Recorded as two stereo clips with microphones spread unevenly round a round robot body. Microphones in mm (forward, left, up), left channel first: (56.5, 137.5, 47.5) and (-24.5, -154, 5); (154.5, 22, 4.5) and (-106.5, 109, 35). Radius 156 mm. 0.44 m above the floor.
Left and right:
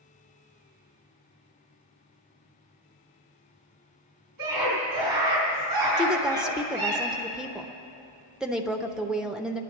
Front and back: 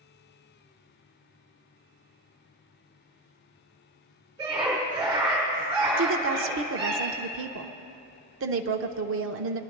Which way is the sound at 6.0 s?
Straight behind.